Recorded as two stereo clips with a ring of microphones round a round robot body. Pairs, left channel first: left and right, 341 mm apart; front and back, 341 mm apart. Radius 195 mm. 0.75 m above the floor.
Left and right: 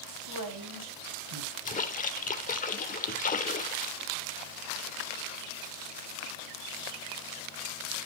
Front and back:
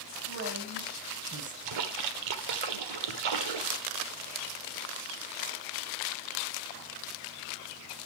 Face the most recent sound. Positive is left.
turn(degrees=160)